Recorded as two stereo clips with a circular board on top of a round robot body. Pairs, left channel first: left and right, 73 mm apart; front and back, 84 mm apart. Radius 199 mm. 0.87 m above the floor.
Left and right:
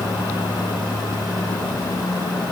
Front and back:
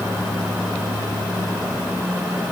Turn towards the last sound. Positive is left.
No sound to turn to.